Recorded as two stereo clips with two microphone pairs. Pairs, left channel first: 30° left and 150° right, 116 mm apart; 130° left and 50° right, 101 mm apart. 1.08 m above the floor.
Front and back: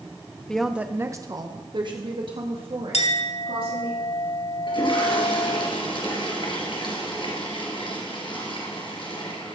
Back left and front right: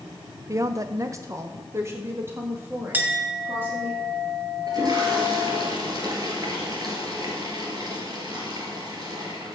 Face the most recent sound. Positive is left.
turn(degrees=-10)